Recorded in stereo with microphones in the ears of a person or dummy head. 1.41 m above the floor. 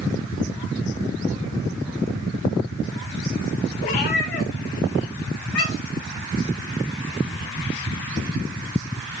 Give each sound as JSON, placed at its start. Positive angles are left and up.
{"t": 3.8, "sound": "a cat meowing", "side_deg": 25, "distance_m": 0.9}